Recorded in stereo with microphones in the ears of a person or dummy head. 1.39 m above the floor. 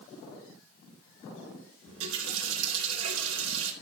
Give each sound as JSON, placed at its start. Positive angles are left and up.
{"t": 1.9, "sound": "a running tap", "side_deg": -80, "distance_m": 4.0}